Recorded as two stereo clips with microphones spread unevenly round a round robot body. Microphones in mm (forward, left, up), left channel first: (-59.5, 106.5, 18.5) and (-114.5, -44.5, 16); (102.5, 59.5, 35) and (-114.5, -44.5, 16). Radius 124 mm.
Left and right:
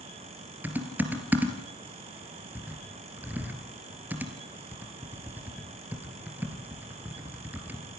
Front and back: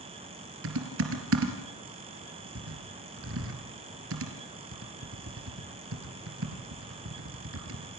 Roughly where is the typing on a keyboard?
Behind.